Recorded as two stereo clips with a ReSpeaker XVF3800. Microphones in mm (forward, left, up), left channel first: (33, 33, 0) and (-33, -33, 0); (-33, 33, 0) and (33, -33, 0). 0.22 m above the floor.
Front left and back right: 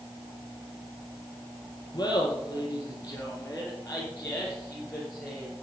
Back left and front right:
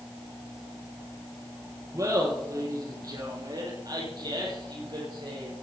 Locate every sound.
1.9 s laughter: 5° right, 3.5 m; by 5.5 s 40° right, 4 m